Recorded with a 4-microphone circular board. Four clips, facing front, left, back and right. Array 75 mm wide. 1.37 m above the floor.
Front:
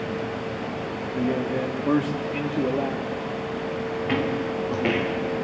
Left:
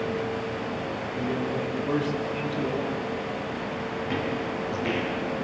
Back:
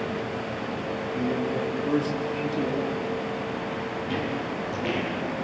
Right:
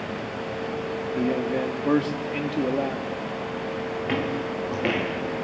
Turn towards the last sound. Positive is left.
turn(degrees=-65)